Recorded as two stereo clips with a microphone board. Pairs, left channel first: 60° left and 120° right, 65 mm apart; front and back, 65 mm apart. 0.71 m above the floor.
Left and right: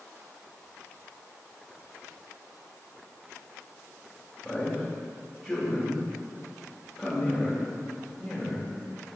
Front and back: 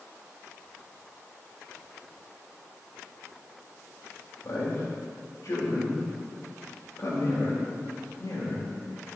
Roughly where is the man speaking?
Ahead right.